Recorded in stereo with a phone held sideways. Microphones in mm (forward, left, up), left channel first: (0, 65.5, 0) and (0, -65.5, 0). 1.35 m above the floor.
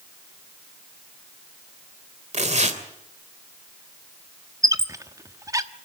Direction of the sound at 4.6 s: 25° right (ahead or behind).